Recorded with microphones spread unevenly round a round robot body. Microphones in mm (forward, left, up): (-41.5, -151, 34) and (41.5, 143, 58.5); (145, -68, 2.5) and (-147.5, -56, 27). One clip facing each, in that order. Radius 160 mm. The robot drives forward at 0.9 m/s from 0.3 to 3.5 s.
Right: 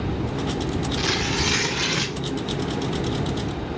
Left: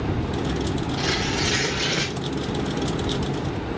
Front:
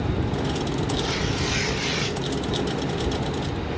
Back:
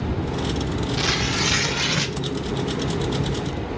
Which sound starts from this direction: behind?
Tearing paper, at 1.0 s.